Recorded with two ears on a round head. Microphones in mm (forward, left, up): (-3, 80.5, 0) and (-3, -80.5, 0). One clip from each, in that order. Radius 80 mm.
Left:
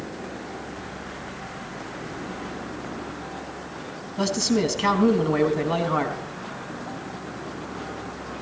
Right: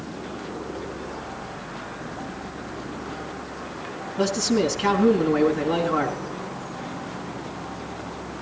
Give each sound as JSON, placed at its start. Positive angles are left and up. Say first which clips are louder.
{"t": 4.2, "sound": "a man speaking", "louder": "right 1 dB", "side_deg": 20, "distance_m": 3.5}